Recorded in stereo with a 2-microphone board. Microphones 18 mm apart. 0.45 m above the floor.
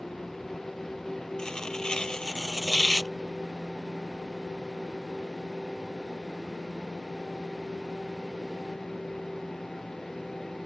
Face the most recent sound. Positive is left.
turn(degrees=40)  # may be behind; listen again after turning